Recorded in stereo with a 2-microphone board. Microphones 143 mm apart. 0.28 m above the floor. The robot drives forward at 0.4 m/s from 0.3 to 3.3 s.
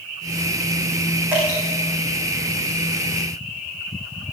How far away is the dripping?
About 7.5 m.